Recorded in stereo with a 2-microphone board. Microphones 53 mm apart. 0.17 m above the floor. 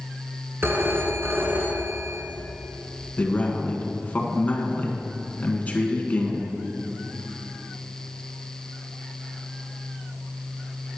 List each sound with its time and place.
0.6 s a phone ringing: 50° right (ahead or behind), 1.3 m
3.2 s a man speaking: 30° left (ahead or behind), 1.5 m